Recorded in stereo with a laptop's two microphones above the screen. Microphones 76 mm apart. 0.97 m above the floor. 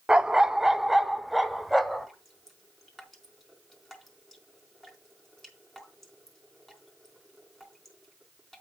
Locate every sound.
0.1 s a dog barking: 10° right (ahead or behind), 0.5 m; by 2.1 s centre (ahead or behind), 1.5 m
2.1 s dripping: 5° left (ahead or behind), 4 m